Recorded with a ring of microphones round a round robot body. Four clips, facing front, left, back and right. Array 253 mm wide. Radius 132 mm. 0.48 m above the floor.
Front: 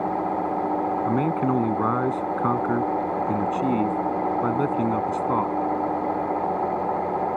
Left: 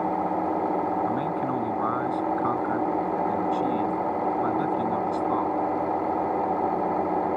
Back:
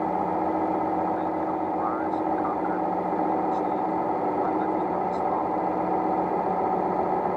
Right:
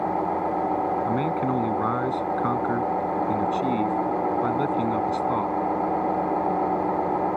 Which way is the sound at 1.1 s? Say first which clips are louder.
Right 2 dB, front 3 dB; 15° right.